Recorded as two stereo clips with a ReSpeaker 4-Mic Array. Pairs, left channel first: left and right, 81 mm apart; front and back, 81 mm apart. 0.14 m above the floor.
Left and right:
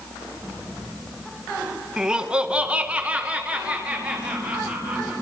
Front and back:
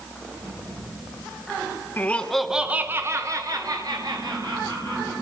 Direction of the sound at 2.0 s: 20° right.